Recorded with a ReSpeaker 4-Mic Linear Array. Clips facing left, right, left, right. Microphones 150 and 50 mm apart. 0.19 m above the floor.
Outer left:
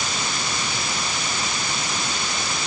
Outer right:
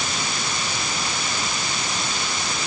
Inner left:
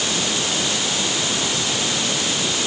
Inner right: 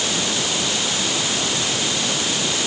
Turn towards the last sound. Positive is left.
No sound to turn to.